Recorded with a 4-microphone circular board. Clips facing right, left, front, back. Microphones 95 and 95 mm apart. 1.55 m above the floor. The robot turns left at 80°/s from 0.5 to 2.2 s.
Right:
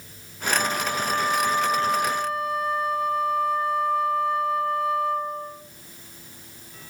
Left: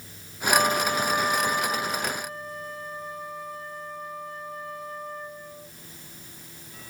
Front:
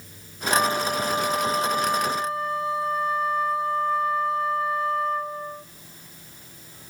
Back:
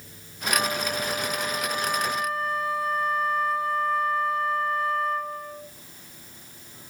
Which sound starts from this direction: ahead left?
A flute, at 0.5 s.